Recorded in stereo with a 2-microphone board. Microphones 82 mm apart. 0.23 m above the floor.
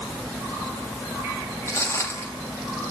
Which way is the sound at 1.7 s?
30° left (ahead or behind).